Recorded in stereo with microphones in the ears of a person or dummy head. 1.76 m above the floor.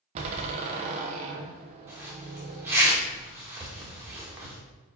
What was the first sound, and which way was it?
A door slam, 40° right (ahead or behind).